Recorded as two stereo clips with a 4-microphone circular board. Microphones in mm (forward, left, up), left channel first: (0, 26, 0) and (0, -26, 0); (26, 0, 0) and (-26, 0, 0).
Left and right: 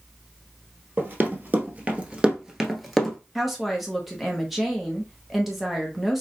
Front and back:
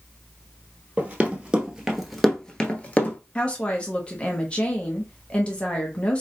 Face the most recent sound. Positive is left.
turn(degrees=-10)